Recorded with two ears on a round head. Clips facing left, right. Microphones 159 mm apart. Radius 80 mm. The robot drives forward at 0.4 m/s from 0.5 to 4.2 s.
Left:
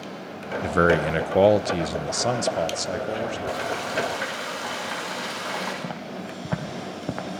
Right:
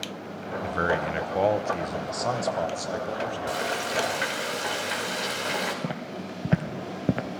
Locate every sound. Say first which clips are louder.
0.6 s a man speaking: left 7 dB; 60° left (ahead or behind), 0.6 m; by 3.4 s 25° left (ahead or behind), 1.2 m
3.5 s frying: left 1 dB; 30° right (ahead or behind), 5 m
5.8 s footsteps: even; 20° right (ahead or behind), 2.5 m; by 7.3 s 30° right (ahead or behind), 1.2 m